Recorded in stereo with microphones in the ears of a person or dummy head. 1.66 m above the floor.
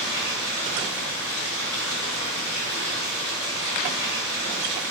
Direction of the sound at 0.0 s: 5° left (ahead or behind).